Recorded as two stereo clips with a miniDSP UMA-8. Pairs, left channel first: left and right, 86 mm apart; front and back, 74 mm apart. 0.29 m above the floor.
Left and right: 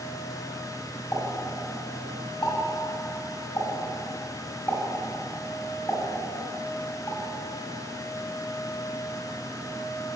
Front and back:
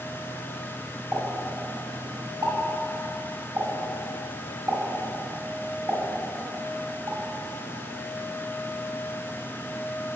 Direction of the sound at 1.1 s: 150° left.